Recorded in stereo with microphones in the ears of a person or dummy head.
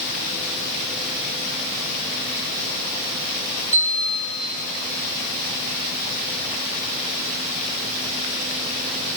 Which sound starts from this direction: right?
A bell, at 3.7 s.